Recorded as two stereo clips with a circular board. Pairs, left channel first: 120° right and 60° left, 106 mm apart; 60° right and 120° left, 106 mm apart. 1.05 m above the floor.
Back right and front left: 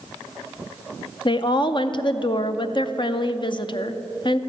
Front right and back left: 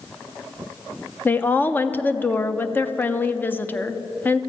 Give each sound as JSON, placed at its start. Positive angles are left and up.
{"t": 1.2, "sound": "a woman speaking", "azimuth_deg": -125, "distance_m": 0.5}